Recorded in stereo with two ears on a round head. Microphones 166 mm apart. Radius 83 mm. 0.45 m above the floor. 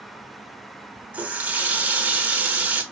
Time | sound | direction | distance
1.1 | a running tap | 10° right (ahead or behind) | 0.6 m